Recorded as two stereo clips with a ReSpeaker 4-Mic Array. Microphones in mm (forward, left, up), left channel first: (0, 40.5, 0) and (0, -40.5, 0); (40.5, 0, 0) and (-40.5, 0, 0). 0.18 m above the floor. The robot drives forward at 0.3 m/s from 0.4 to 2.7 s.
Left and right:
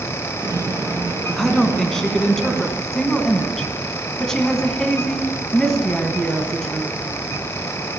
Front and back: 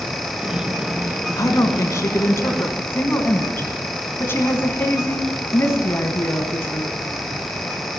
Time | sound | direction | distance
1.4 | a woman speaking | 10° left | 1.4 m